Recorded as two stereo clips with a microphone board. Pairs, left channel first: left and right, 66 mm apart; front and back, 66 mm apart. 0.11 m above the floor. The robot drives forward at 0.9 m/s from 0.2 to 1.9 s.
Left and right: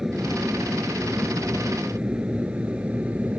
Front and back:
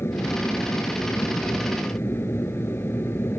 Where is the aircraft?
10° right; by 3.4 s 30° right.